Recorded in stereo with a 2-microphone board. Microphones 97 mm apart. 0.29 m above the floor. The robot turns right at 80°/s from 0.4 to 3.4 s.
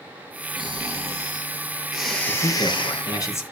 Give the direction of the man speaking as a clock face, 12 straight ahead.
10 o'clock.